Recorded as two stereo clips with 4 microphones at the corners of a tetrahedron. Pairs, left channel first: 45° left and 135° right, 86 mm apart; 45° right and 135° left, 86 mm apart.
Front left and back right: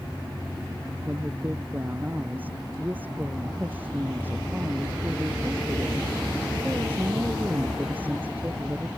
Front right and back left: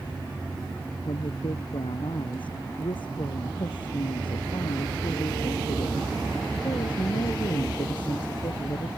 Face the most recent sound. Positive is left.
turn(degrees=-65)